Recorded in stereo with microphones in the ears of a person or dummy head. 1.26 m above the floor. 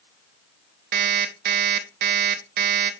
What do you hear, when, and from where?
0.9 s an alarm clock: 50° right (ahead or behind), 0.9 m